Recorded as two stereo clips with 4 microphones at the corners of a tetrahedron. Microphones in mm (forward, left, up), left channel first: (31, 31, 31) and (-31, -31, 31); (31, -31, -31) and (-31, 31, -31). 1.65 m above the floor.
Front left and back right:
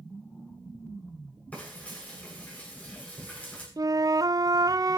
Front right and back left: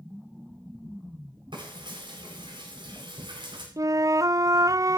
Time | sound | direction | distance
1.5 | frying | 115° left | 9.5 m
3.8 | a flute | straight behind | 0.6 m